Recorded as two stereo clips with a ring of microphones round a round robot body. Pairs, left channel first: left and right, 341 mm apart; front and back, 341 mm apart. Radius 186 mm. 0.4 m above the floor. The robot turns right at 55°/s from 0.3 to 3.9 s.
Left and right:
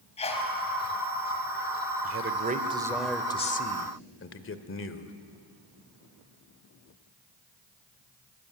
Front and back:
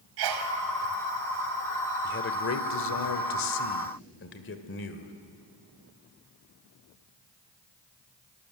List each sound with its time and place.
0.2 s a sneeze: 165° left, 2 m; by 0.5 s 175° left, 2 m
2.0 s a man speaking: 55° right, 1.5 m; by 5.1 s 50° left, 1.5 m